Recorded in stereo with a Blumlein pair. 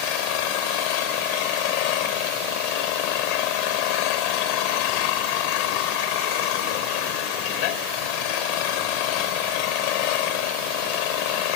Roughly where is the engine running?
Ahead left.